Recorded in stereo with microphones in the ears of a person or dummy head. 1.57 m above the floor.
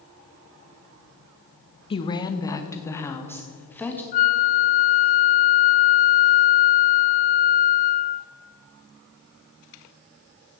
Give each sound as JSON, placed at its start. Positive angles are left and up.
{"t": 1.9, "sound": "a woman speaking", "side_deg": 30, "distance_m": 0.9}
{"t": 4.1, "sound": "a flute", "side_deg": 45, "distance_m": 0.7}